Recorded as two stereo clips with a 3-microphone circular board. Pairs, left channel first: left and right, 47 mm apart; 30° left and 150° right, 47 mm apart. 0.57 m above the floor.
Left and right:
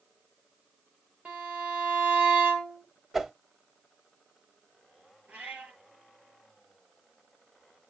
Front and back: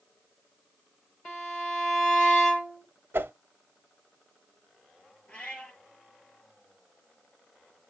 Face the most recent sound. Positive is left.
turn(degrees=-35)